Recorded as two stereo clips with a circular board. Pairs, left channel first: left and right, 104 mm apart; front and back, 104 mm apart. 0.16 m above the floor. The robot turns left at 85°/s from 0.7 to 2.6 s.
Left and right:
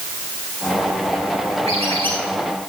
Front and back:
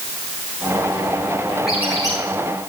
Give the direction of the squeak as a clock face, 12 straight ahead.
3 o'clock.